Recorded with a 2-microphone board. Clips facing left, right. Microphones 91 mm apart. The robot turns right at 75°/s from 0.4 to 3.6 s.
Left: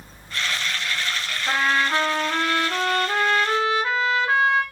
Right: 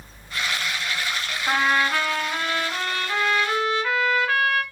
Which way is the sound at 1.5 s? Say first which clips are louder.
Even; 10° right.